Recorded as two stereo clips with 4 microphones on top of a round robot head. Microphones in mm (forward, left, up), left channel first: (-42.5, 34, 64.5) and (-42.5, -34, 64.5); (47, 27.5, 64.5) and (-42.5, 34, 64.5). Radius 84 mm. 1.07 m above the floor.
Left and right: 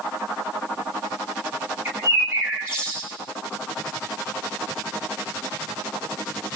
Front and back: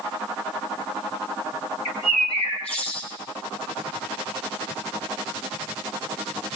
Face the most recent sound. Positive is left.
turn(degrees=-20)